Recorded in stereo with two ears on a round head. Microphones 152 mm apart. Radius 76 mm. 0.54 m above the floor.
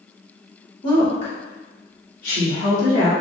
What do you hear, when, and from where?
0.8 s a woman speaking: 30° left (ahead or behind), 1.4 m; by 3.1 s 65° left (ahead or behind), 3 m